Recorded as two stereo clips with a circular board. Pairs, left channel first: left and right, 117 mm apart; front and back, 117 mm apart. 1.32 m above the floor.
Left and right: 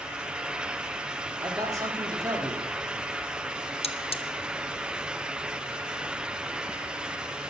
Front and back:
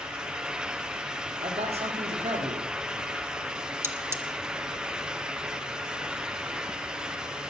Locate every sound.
1.4 s a man speaking: 150° right, 3 m
3.8 s cutlery clinking: 115° left, 0.9 m